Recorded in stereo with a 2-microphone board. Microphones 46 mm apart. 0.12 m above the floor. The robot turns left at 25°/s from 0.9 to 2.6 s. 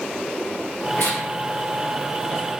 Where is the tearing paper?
65° left (ahead or behind), 3 m; by 2.4 s 55° left (ahead or behind), 3 m.